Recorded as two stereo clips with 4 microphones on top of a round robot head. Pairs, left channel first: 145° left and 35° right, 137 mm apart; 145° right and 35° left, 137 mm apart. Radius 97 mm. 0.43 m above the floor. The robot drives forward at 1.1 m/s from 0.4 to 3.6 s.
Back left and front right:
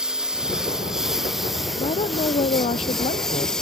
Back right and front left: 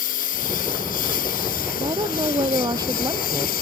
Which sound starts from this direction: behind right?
A lawn mower, at 0.0 s.